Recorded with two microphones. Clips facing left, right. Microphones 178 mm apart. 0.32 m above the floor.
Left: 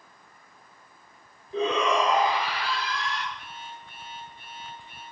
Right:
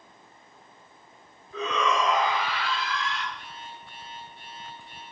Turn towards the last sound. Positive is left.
turn(degrees=-80)